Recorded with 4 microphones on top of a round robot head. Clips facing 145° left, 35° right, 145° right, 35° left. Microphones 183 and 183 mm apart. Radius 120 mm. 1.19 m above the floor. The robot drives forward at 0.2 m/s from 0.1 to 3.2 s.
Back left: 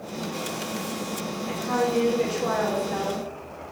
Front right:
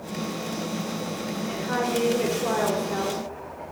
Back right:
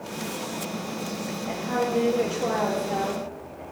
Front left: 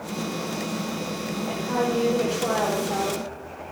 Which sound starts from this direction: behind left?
A woman speaking, at 1.5 s.